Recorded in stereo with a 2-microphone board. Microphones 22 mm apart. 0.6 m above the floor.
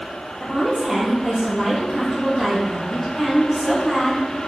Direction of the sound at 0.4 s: 5° right (ahead or behind).